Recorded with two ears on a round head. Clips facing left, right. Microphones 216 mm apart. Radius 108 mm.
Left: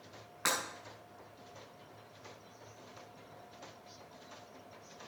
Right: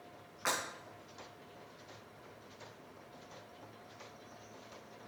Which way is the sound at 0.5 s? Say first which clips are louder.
Left 1 dB; 55° left (ahead or behind).